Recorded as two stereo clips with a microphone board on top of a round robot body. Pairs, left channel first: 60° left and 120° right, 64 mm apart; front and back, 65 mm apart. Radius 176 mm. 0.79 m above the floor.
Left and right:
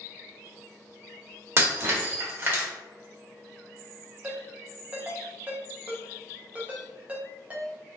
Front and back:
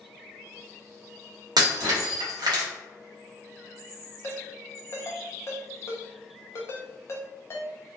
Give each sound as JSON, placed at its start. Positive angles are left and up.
{"t": 1.6, "sound": "breaking glass", "azimuth_deg": -175, "distance_m": 0.8}
{"t": 4.2, "sound": "a ringtone", "azimuth_deg": -50, "distance_m": 0.6}